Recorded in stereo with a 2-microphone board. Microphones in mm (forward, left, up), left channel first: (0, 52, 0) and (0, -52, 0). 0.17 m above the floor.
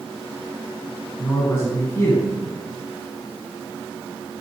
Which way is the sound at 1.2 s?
25° left (ahead or behind).